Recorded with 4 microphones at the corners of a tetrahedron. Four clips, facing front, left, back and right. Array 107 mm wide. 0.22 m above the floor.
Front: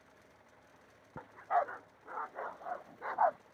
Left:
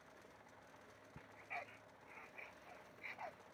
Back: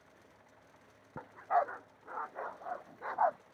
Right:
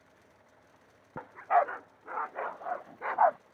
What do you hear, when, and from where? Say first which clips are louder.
1.2 s a dog barking: right 26 dB, back 1 dB; 100° right; by 3.4 s 90° right